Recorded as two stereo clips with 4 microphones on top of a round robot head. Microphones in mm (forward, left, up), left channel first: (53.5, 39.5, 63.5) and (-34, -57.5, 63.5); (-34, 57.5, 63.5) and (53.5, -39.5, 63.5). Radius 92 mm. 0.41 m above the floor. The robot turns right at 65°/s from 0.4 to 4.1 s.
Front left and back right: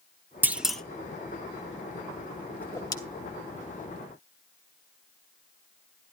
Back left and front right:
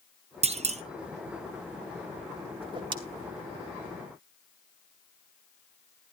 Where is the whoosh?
30° right, 1.9 m; by 3.0 s 5° right, 1.9 m.